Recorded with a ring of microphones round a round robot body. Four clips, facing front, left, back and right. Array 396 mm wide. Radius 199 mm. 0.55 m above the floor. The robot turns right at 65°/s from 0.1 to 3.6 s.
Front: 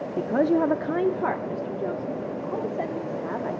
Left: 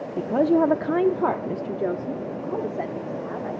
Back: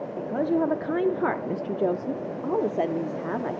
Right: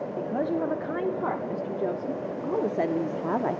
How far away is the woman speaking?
About 0.8 m.